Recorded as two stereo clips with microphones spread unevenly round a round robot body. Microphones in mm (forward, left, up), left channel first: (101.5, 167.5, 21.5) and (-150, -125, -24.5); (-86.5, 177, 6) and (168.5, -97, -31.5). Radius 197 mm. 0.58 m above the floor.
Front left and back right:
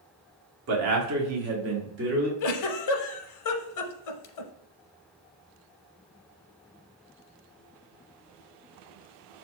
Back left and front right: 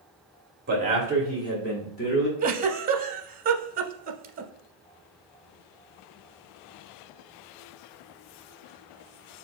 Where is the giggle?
25° left, 0.6 m.